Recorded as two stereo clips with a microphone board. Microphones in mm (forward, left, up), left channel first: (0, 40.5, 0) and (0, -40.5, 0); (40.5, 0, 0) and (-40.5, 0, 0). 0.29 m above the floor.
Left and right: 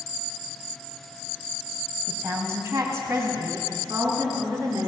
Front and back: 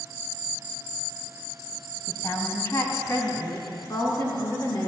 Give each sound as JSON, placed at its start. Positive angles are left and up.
{"t": 2.1, "sound": "a woman speaking", "azimuth_deg": -45, "distance_m": 1.6}